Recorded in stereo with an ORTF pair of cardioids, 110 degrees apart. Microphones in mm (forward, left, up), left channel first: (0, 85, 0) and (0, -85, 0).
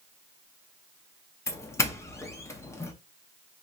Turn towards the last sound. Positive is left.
turn(degrees=15)